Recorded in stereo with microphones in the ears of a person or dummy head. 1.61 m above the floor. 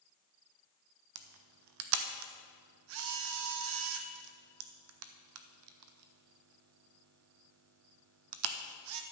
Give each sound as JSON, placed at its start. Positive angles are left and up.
{"t": 1.1, "sound": "a camera shutter", "side_deg": -65, "distance_m": 0.9}